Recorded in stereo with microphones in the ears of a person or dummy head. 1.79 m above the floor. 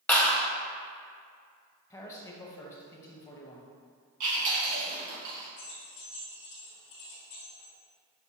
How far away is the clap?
About 0.8 m.